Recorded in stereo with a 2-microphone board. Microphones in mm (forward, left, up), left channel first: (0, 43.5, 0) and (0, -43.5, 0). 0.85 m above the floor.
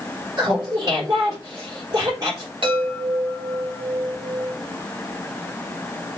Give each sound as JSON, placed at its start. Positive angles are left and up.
{"t": 0.4, "sound": "laughter", "side_deg": -45, "distance_m": 3.0}
{"t": 2.6, "sound": "a chime", "side_deg": -70, "distance_m": 2.5}